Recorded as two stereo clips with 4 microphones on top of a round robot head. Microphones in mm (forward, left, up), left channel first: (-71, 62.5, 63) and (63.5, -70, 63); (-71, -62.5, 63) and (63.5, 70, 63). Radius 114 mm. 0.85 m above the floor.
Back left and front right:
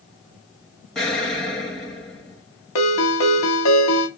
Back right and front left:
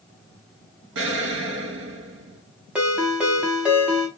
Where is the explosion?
45° left, 0.8 m.